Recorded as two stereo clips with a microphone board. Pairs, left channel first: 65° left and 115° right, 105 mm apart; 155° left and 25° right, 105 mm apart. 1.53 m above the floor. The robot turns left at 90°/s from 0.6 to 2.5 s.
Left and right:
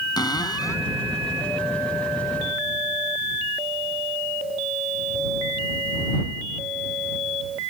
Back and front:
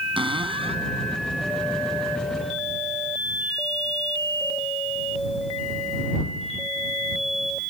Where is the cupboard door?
15° left; by 0.9 s 10° right.